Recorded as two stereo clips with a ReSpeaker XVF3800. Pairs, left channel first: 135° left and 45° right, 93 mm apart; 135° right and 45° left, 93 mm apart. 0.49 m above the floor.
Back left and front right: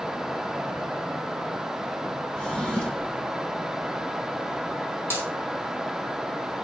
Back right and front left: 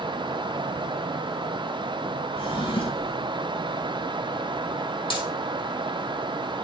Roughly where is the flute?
No flute in this recording.